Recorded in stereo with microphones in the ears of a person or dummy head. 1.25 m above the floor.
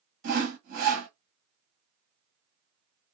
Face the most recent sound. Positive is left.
turn(degrees=-60)  # may be behind; listen again after turning